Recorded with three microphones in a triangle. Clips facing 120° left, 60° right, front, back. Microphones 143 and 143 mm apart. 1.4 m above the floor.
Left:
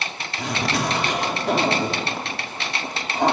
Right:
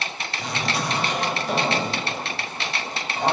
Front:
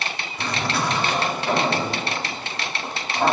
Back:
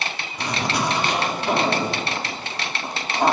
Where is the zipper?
105° left, 3 m.